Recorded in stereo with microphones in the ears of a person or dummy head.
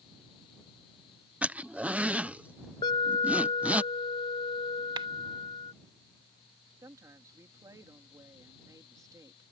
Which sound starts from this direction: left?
An alarm, at 2.8 s.